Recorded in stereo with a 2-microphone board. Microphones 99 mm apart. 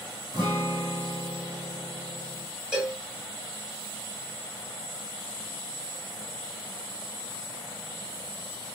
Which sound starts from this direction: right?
A guitar, at 0.3 s.